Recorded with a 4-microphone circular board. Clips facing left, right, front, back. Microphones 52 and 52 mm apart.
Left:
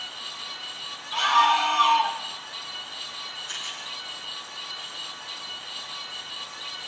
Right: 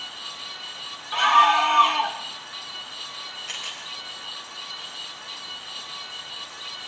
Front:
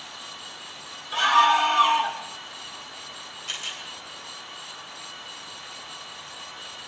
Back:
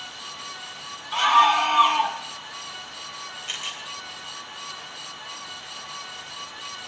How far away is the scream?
About 1.7 m.